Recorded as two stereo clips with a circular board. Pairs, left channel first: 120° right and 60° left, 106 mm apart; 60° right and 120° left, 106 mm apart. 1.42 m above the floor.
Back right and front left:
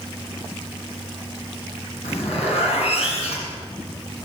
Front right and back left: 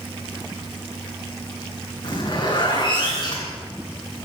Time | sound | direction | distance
2.0 | a zipper | 105° right | 8.5 m